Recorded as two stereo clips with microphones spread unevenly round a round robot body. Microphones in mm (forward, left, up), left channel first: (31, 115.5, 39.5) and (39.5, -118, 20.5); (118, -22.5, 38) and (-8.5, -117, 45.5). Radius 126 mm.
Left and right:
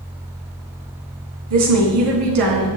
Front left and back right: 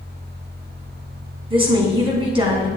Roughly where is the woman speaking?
Right.